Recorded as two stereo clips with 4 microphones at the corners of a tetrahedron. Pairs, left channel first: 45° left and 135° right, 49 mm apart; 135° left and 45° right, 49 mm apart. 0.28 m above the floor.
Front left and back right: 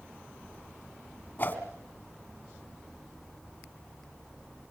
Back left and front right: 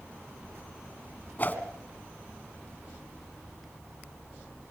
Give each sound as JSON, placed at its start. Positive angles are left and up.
{"t": 1.4, "sound": "a whoosh", "azimuth_deg": 80, "distance_m": 1.8}